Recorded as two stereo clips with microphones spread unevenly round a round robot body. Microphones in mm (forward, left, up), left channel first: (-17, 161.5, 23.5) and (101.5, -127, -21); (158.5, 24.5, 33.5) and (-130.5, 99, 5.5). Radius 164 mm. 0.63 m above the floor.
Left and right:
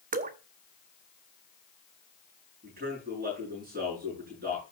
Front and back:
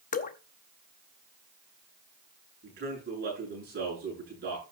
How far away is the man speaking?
About 8.5 m.